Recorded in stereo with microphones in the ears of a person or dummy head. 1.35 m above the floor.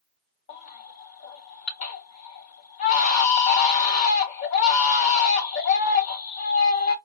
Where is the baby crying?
35° left (ahead or behind), 0.7 m.